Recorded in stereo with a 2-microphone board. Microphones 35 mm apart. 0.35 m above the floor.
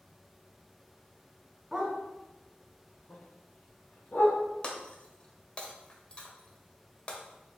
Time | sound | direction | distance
1.7 | a dog barking | 15° right (ahead or behind) | 0.8 m
4.6 | breaking glass | 30° left (ahead or behind) | 0.6 m